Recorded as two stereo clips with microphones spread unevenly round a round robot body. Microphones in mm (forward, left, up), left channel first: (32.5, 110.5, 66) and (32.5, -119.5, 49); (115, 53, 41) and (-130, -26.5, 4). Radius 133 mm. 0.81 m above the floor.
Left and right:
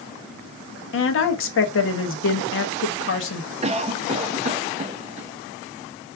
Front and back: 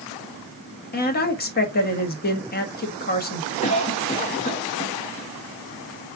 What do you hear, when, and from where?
0.9 s a woman speaking: 70° left, 1.3 m
3.6 s a cough: 45° right, 0.7 m